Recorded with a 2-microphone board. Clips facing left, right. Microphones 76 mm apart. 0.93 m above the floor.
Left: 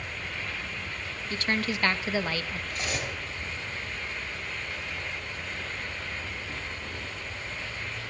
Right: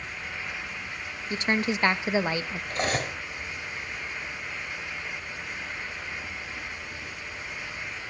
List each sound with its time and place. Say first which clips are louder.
0.0 s an insect: even; 65° left (ahead or behind), 3 m
1.3 s a woman speaking: right 3 dB; 20° right (ahead or behind), 0.8 m
2.7 s cutlery clinking: right 7 dB; 55° right (ahead or behind), 4 m